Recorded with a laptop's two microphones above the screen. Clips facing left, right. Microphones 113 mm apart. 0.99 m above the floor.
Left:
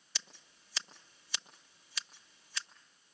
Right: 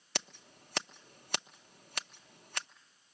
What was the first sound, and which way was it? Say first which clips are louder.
Scissors: right 10 dB; 60° right (ahead or behind).